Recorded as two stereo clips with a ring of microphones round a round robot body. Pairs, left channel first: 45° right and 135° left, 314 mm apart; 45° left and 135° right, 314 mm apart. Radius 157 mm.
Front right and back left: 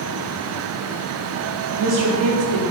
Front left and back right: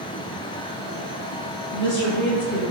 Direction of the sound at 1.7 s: 105° left.